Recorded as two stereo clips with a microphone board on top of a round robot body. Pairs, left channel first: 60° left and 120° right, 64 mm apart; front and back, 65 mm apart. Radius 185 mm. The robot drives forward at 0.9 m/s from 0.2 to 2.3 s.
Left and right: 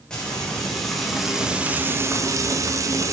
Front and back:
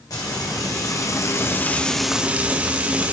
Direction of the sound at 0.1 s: 20° right.